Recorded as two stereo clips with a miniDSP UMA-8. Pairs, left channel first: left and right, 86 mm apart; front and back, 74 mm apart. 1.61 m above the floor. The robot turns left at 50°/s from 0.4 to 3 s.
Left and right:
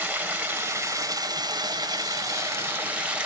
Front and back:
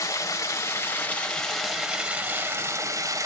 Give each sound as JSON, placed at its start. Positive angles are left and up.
{"t": 0.0, "sound": "running water", "azimuth_deg": -30, "distance_m": 0.7}